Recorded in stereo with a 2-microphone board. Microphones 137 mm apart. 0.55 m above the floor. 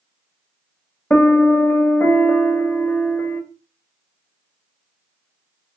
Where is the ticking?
No ticking in this recording.